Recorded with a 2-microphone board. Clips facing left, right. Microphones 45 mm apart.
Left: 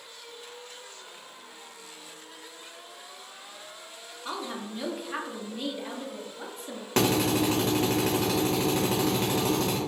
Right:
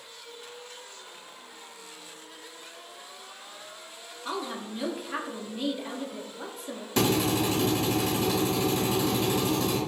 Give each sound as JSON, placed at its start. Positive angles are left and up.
{"t": 4.2, "sound": "a woman speaking", "side_deg": -5, "distance_m": 0.6}
{"t": 7.0, "sound": "a drill", "side_deg": 55, "distance_m": 1.5}